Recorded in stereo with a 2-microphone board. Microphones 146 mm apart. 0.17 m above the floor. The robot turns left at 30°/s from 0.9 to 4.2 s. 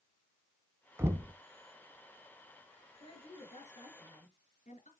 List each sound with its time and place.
1.0 s knocking: 15° right (ahead or behind), 0.9 m; by 1.3 s 20° right (ahead or behind), 0.9 m
3.0 s a woman speaking: 130° left, 3 m; by 4.9 s 95° left, 3 m